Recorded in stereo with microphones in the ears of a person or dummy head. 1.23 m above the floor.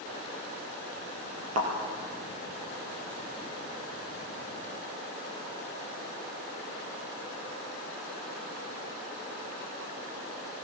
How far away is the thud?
About 3.5 m.